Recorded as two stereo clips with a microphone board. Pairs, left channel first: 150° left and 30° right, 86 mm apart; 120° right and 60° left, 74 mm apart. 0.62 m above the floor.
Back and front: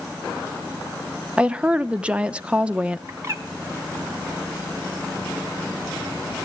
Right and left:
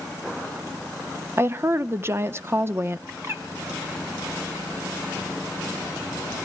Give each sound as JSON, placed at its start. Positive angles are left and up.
{"t": 1.4, "sound": "a woman speaking", "azimuth_deg": 40, "distance_m": 0.6}
{"t": 3.1, "sound": "a bird", "azimuth_deg": 20, "distance_m": 1.6}